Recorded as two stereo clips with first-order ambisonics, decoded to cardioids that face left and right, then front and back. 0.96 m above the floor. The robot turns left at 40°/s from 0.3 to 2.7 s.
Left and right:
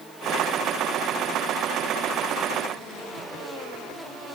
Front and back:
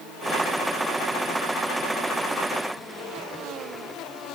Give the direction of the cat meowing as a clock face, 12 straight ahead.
No cat meowing in this recording.